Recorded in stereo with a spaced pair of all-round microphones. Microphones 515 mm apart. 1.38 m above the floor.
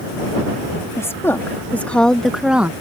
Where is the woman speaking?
5° left (ahead or behind); by 2.7 s 5° right (ahead or behind).